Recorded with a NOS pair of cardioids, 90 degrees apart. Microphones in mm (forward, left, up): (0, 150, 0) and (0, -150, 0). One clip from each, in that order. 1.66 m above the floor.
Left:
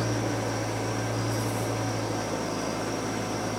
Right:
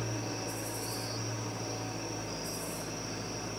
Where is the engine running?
50° left, 0.7 m.